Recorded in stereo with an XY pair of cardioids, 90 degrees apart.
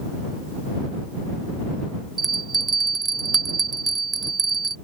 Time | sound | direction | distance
2.2 | a bell | 40° right | ?